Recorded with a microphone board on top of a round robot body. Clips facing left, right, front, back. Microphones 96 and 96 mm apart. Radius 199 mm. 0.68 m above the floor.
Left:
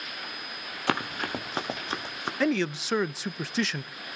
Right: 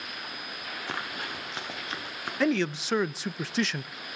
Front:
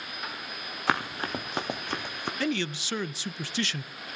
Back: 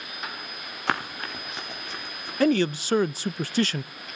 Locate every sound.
0.9 s running footsteps: 90° left, 0.9 m; by 2.3 s 25° left, 2 m
2.4 s a man speaking: straight behind, 0.6 m